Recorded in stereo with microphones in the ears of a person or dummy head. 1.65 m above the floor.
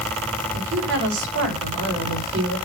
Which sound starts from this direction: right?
A woman speaking, at 0.5 s.